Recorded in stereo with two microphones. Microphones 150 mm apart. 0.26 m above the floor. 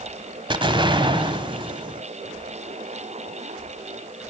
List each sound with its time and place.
0.5 s an explosion: 35° right (ahead or behind), 1.4 m